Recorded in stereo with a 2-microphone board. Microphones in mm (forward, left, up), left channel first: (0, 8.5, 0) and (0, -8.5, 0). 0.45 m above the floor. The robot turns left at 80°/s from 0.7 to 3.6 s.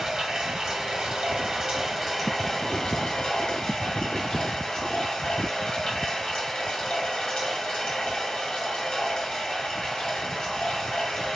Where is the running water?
65° right, 1.5 m; by 11.4 s 65° left, 1.5 m.